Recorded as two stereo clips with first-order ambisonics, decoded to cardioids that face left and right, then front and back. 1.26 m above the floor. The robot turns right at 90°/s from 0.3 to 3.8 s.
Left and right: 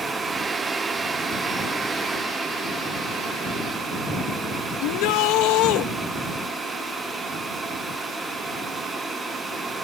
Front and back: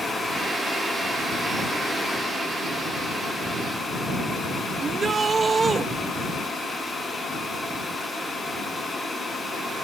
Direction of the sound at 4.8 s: 110° left.